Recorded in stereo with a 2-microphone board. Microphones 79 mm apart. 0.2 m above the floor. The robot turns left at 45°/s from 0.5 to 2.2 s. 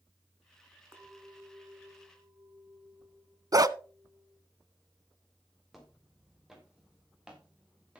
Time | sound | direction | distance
0.9 | a clink | 45° right | 1.8 m
3.5 | a dog barking | 50° right (ahead or behind) | 0.5 m
5.7 | footsteps | centre (ahead or behind) | 4.5 m